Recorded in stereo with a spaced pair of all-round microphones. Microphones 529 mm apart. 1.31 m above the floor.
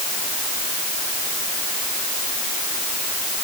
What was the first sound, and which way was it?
Only background noise.